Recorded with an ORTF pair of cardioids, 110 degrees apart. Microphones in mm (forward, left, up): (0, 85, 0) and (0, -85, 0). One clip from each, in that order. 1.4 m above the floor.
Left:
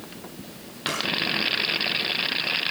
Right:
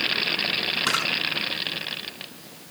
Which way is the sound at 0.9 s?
35° right.